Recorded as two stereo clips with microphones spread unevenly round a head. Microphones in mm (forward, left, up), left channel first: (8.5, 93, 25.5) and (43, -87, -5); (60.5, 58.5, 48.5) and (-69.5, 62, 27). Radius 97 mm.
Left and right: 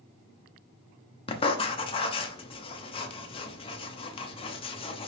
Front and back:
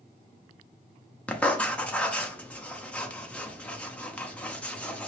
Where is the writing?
65° left, 0.6 m.